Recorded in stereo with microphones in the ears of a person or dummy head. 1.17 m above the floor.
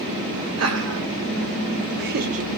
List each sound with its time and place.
0.6 s laughter: 75° right (ahead or behind), 1.9 m; by 2.5 s 30° right (ahead or behind), 0.7 m